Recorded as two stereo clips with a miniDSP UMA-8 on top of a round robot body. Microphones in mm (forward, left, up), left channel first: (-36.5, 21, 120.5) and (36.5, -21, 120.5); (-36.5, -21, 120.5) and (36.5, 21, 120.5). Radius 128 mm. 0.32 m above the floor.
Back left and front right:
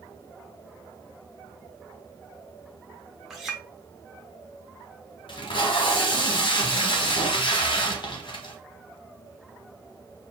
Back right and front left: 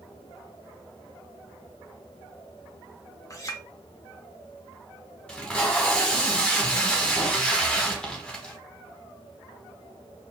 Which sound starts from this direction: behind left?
Tape being pulled, at 5.3 s.